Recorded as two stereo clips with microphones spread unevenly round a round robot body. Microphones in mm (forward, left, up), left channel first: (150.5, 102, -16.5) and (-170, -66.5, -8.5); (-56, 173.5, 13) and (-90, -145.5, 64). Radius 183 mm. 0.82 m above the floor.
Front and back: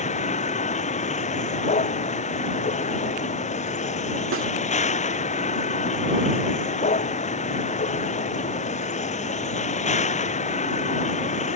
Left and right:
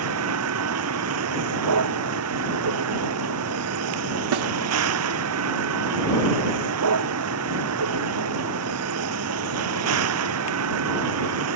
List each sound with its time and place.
0.0 s a vehicle: 45° right
4.3 s a snare drum: 95° right